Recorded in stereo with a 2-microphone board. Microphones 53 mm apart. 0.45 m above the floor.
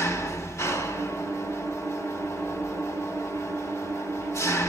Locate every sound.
0.0 s an engine running: 65° left (ahead or behind), 1.3 m